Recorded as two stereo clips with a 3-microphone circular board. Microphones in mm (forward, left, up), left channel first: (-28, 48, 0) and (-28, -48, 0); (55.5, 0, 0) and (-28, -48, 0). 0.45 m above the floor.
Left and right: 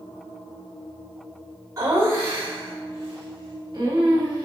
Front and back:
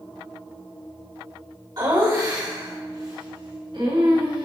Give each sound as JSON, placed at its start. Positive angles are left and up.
{"t": 1.8, "sound": "laughter", "azimuth_deg": -135, "distance_m": 1.7}